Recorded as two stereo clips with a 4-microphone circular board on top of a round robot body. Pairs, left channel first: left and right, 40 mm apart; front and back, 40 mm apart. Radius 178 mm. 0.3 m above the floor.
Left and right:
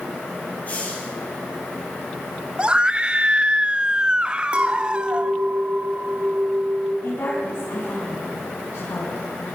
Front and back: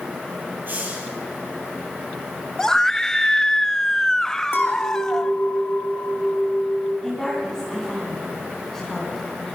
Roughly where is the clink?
Ahead right.